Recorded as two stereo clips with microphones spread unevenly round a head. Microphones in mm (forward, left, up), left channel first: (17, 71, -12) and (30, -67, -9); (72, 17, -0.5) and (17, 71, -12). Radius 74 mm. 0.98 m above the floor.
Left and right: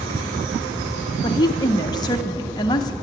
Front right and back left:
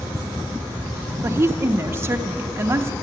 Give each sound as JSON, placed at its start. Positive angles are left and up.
{"t": 1.2, "sound": "a woman speaking", "azimuth_deg": 140, "distance_m": 0.5}